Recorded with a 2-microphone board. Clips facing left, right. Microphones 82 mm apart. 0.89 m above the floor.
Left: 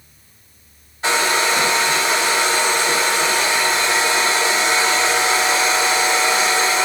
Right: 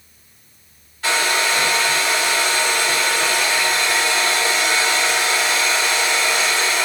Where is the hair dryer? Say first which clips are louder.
Left 2 dB; 25° left (ahead or behind), 0.9 m.